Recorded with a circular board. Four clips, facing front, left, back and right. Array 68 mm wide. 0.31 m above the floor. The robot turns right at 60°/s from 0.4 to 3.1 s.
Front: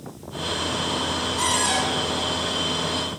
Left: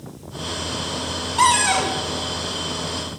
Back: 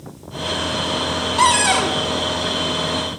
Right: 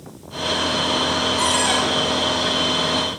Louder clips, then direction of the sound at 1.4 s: Left 7 dB, back 9 dB; 145° left.